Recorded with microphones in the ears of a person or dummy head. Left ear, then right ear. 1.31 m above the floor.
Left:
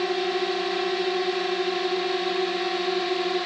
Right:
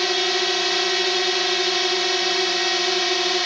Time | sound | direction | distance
0.0 | a drone | 55° right (ahead or behind) | ?